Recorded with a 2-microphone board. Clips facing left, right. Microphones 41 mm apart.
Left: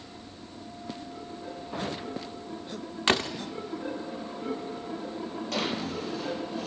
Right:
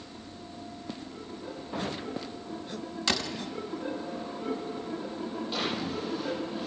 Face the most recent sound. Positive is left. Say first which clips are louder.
# left 2 dB
turn(degrees=80)